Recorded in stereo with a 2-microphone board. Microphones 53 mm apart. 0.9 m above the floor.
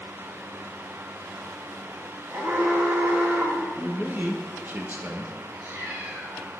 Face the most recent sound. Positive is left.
turn(degrees=-60)  # may be behind; listen again after turning